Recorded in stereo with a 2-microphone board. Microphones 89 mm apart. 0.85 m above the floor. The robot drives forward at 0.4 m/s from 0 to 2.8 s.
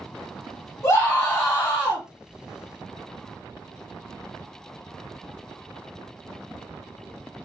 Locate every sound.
0.8 s a scream: 30° left (ahead or behind), 1.5 m; by 2.0 s 25° left (ahead or behind), 1.8 m